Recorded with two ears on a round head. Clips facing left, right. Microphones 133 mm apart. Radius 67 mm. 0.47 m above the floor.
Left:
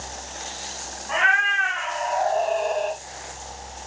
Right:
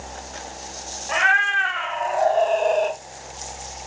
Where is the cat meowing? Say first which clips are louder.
Right 1 dB; 45° right (ahead or behind), 1.4 m; by 3.0 s 65° right (ahead or behind), 0.5 m.